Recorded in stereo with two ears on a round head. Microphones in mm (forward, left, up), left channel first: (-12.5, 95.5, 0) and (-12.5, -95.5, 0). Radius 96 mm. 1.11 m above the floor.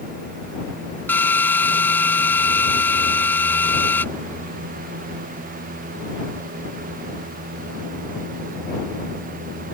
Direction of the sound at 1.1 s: 10° left (ahead or behind).